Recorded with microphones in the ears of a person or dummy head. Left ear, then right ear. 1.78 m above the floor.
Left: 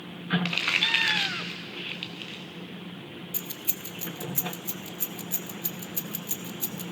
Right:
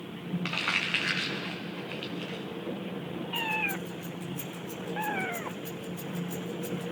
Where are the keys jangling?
20° left (ahead or behind), 0.6 m.